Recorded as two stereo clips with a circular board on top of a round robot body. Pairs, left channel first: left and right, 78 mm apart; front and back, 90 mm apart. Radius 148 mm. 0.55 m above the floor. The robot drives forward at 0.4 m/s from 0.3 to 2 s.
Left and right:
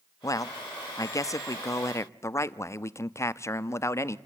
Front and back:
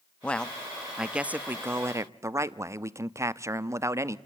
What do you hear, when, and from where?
0.2 s a man speaking: 75° left, 0.9 m; by 4.2 s 130° left, 1.0 m